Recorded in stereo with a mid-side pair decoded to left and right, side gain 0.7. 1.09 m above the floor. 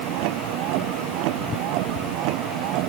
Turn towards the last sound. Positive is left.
turn(degrees=-65)